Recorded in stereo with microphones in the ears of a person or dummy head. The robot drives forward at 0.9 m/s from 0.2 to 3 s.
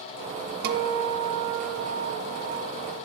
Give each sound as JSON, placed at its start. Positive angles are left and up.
{"t": 0.6, "sound": "a guitar", "side_deg": -60, "distance_m": 0.9}